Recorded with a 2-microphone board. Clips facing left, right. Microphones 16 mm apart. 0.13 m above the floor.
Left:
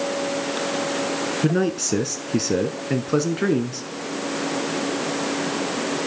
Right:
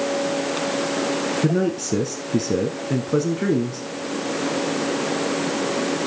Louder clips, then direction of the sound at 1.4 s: Left 2 dB; 25° left (ahead or behind).